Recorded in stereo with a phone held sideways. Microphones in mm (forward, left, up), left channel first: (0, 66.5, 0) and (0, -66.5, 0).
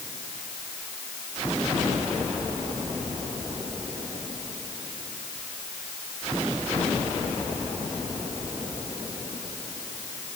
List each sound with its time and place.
Only background noise.